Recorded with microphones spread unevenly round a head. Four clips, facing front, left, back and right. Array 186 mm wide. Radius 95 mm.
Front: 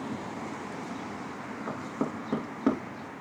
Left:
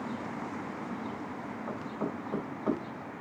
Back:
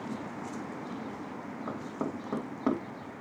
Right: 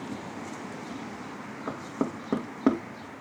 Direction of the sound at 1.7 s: 75° right.